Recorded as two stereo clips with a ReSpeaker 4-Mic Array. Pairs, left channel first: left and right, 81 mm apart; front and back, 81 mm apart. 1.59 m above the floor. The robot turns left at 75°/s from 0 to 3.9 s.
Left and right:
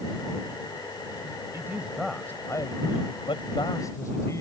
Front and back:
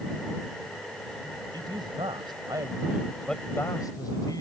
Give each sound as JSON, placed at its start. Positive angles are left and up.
{"t": 1.5, "sound": "a man speaking", "azimuth_deg": -145}